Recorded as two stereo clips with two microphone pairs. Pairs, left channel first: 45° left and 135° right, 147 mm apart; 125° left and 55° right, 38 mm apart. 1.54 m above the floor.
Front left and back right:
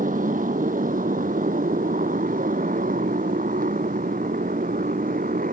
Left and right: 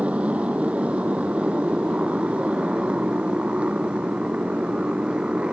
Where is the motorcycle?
115° right; by 5.5 s 120° right.